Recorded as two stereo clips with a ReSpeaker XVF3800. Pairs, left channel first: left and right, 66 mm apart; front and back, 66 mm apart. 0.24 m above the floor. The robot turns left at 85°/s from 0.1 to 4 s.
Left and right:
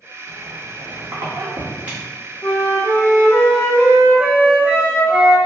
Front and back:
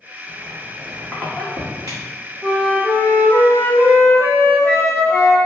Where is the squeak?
25° right, 1.3 m; by 2.0 s 175° right, 1.3 m.